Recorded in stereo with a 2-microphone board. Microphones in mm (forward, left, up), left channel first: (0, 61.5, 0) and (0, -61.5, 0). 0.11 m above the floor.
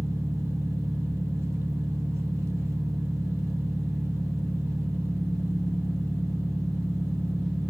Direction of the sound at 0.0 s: 20° right (ahead or behind).